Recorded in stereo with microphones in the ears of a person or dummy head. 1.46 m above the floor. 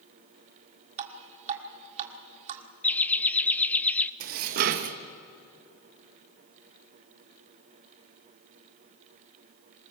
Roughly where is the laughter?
Centre.